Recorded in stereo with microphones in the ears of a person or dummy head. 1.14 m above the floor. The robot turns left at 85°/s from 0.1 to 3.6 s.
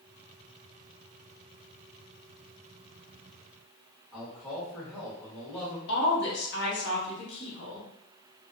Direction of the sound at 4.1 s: 5° left (ahead or behind).